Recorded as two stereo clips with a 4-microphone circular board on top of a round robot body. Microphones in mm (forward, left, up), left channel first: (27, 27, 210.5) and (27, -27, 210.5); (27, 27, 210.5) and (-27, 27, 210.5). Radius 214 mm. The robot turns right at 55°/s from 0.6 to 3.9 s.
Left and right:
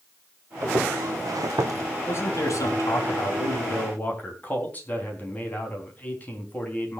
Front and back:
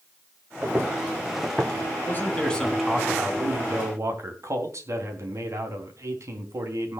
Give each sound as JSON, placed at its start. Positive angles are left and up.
{"t": 0.6, "sound": "footsteps", "azimuth_deg": -115, "distance_m": 2.5}
{"t": 2.1, "sound": "a man speaking", "azimuth_deg": 50, "distance_m": 4.0}